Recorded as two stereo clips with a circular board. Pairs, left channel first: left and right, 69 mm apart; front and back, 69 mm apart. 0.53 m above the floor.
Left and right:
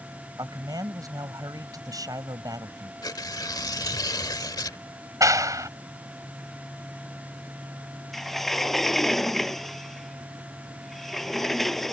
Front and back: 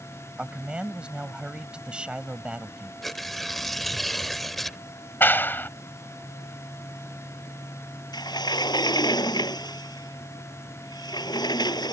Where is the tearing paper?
85° left.